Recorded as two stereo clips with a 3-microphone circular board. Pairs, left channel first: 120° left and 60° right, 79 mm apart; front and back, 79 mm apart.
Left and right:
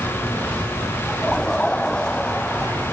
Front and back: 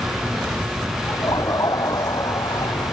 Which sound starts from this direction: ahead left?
Laughter, at 1.1 s.